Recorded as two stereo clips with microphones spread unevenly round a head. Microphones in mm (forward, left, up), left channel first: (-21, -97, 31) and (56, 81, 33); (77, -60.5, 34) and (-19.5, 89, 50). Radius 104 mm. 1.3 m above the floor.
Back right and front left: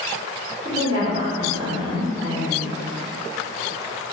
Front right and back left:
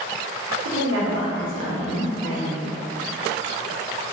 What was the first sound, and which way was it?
A woman speaking, 130° left.